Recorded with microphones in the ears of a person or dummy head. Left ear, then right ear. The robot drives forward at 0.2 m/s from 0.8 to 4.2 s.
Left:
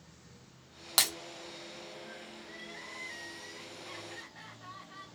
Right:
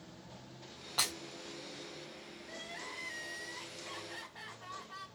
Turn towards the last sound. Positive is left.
turn(degrees=-10)  # may be behind; listen again after turning